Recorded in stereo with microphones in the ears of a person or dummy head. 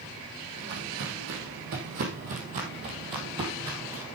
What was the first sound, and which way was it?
Footsteps, 60° right (ahead or behind).